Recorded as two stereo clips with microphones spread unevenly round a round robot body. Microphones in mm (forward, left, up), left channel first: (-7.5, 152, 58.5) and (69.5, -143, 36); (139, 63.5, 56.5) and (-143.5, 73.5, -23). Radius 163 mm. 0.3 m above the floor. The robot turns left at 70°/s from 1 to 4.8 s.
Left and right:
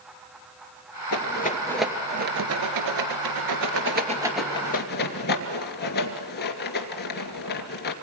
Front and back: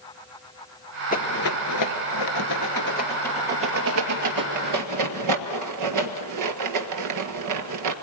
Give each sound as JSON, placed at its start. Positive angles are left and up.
{"t": 1.1, "sound": "a rattle", "azimuth_deg": 65, "distance_m": 2.0}